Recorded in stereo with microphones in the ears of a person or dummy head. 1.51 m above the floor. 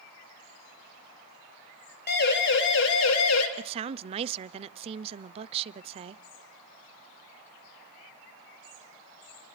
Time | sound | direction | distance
2.1 | a siren | 50° left (ahead or behind) | 3 m
3.6 | a woman speaking | 30° right (ahead or behind) | 0.6 m